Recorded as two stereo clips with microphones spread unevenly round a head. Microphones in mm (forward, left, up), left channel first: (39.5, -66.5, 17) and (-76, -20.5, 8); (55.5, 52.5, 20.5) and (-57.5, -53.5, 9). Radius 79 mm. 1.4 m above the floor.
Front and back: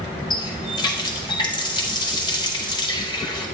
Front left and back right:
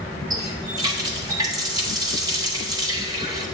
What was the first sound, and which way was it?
A running tap, 70° right.